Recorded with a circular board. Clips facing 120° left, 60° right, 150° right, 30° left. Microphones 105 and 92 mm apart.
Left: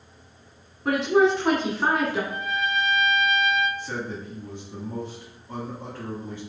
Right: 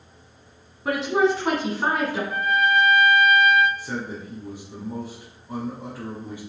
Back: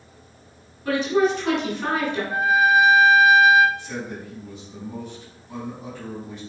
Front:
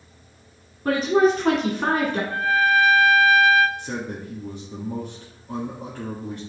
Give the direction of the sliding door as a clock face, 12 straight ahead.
I don't hear a sliding door.